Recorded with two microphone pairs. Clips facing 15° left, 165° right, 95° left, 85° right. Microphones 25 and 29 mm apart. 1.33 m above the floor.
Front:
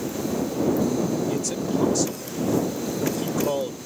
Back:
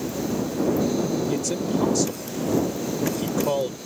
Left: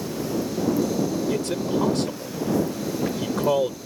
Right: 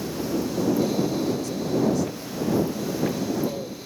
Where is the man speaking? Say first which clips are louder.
Back 1 dB, left 1 dB; 110° left.